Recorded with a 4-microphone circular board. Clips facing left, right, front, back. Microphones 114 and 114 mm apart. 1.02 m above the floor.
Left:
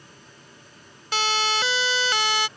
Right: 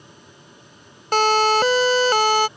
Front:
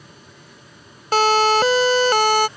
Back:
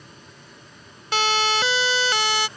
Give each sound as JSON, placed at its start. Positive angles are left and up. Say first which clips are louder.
{"t": 1.1, "sound": "a siren", "louder": "right 9 dB, front 8 dB", "azimuth_deg": -50}